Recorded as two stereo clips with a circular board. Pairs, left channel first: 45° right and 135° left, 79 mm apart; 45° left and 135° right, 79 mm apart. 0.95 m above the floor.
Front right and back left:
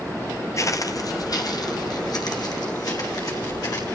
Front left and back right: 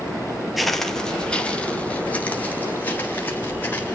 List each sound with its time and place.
0.6 s footsteps: 50° right, 1.2 m; by 3.9 s 20° right, 4.5 m